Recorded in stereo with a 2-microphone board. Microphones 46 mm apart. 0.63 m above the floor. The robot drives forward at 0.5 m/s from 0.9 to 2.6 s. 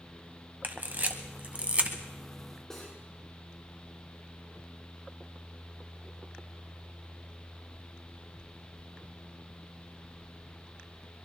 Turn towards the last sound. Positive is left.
turn(degrees=10)  # may be behind; listen again after turning